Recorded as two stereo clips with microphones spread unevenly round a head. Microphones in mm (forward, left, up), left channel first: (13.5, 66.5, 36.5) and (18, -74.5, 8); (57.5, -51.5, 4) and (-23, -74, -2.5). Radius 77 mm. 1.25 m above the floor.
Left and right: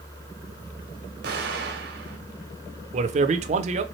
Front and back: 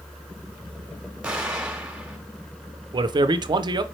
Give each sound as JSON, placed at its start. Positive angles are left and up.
{"t": 1.2, "sound": "an explosion", "azimuth_deg": -90, "distance_m": 1.2}
{"t": 2.9, "sound": "a man speaking", "azimuth_deg": -130, "distance_m": 0.6}